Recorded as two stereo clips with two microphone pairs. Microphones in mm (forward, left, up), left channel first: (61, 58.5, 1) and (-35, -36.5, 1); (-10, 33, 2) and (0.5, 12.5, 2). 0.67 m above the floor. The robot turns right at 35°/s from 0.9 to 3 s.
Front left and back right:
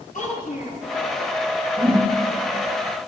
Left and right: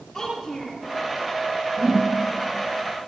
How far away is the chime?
No chime in this recording.